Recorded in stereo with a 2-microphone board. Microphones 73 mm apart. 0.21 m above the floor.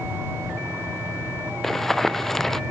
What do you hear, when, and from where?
1.6 s running footsteps: 5° left (ahead or behind)